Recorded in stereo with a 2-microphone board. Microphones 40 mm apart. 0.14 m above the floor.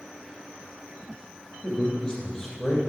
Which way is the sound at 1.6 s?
20° left (ahead or behind).